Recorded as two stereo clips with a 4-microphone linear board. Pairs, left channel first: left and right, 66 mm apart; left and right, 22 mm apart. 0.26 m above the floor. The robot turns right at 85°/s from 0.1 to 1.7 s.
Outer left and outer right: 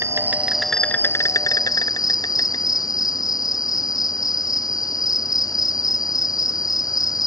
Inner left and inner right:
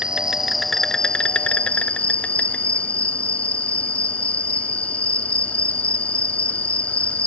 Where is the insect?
45° right; by 7.3 s 90° left.